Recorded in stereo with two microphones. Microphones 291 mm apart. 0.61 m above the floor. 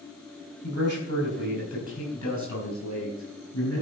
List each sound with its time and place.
0.6 s a man speaking: 75° left (ahead or behind), 3.5 m; by 3.8 s 70° left (ahead or behind), 5 m